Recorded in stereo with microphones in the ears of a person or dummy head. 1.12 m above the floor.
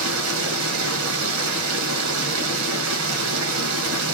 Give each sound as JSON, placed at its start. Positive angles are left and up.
{"t": 0.0, "sound": "running water", "side_deg": -70, "distance_m": 1.1}